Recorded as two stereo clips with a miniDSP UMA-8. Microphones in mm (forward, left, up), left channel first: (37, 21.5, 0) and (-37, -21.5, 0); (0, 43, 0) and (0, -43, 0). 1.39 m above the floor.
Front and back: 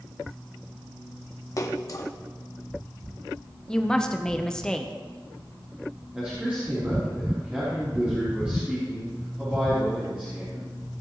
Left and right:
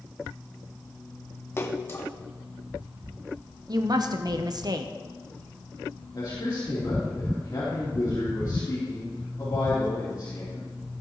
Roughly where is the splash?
Ahead left.